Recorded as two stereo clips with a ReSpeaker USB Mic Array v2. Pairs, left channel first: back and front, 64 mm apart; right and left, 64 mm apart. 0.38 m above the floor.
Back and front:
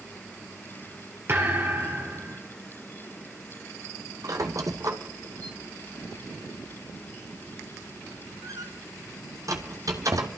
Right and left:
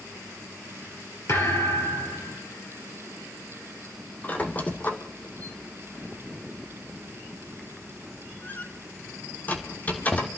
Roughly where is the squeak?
Ahead right.